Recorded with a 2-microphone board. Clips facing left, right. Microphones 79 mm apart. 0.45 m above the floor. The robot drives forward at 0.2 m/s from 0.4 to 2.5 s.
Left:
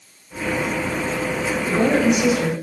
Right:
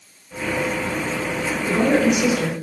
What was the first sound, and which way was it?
A woman speaking, centre (ahead or behind).